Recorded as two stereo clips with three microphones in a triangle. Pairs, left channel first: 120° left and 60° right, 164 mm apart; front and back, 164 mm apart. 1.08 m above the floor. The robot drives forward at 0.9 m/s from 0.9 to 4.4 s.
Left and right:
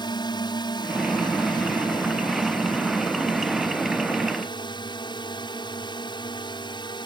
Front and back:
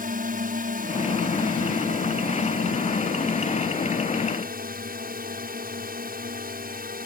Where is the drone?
175° left; by 7.1 s straight behind.